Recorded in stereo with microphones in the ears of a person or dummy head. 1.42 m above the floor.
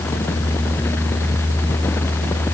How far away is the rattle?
I don't hear a rattle.